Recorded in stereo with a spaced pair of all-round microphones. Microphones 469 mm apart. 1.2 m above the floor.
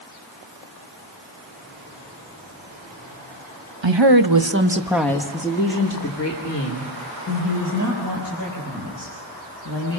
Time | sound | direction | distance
3.8 | a woman speaking | 70° right (ahead or behind) | 1.5 m